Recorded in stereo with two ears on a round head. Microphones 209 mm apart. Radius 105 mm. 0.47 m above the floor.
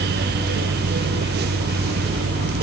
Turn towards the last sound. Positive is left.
No sound to turn to.